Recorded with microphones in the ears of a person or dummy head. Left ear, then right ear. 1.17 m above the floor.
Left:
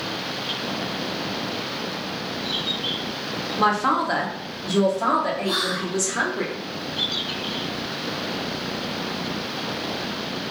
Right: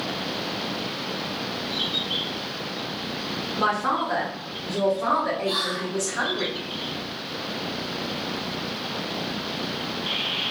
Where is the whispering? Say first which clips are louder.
Left 2 dB; 55° left (ahead or behind), 1.2 m.